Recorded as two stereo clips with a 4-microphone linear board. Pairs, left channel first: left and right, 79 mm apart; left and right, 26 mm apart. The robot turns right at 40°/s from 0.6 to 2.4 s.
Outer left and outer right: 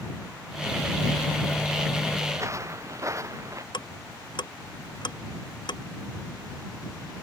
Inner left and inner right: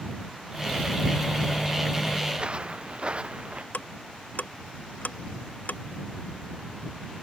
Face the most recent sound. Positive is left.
turn(degrees=75)  # may be behind; listen again after turning